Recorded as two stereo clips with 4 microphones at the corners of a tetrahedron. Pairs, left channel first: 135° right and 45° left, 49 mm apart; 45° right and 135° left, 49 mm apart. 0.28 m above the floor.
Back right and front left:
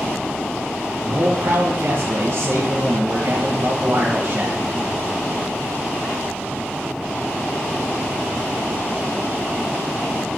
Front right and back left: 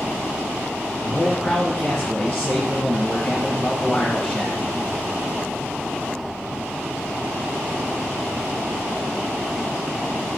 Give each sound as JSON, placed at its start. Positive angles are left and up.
{"t": 1.1, "sound": "a man speaking", "azimuth_deg": 25, "distance_m": 2.0}